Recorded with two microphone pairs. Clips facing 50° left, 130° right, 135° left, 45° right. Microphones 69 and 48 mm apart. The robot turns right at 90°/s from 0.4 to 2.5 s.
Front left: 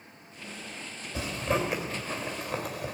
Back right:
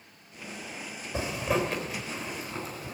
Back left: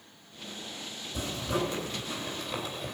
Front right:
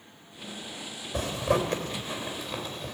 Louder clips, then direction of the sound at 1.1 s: Back right 1 dB, front right 5 dB; 85° right.